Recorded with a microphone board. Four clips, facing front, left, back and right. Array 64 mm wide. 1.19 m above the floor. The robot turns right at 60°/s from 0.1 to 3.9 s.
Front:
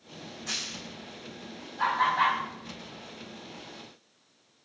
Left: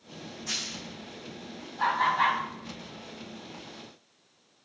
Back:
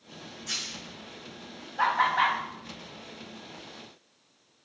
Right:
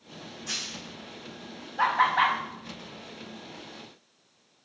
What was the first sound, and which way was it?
A dropped coin, 10° left.